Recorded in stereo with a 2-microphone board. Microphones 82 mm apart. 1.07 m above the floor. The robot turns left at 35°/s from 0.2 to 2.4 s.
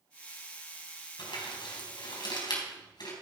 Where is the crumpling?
75° left (ahead or behind), 4 m; by 3.1 s 60° left (ahead or behind), 4 m.